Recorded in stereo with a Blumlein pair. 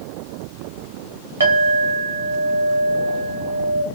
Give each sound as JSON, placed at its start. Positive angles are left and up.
{"t": 1.4, "sound": "a clink", "azimuth_deg": -70, "distance_m": 1.5}